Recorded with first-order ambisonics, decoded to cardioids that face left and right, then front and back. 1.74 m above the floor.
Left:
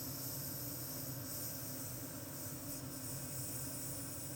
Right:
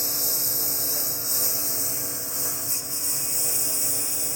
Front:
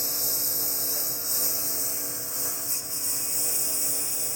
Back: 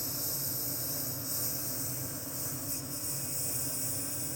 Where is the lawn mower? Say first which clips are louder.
Right 20 dB, front 8 dB; 60° right.